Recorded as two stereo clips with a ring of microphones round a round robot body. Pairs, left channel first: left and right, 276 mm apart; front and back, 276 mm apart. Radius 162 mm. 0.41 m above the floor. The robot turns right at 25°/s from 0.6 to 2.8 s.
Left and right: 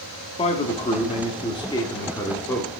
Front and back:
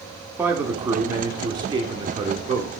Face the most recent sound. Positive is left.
turn(degrees=165)